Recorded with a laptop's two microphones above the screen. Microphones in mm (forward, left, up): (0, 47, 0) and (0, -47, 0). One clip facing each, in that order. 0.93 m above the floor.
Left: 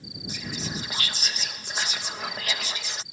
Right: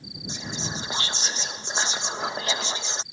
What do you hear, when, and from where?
0.3 s whispering: 25° right (ahead or behind)